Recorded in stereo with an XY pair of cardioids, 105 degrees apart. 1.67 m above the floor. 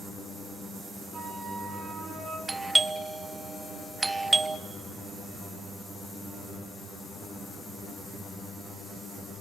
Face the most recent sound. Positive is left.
turn(degrees=-20)